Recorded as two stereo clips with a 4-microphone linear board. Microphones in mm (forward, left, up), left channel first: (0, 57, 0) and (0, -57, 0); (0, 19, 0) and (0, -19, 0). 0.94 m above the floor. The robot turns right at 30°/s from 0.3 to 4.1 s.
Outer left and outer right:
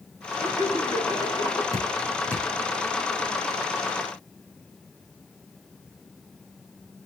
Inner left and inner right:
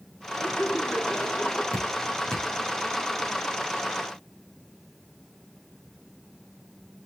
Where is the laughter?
105° left, 7 m; by 1.6 s 140° left, 7 m.